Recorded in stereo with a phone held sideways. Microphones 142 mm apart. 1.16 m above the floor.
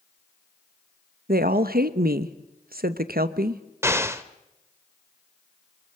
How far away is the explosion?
About 0.9 m.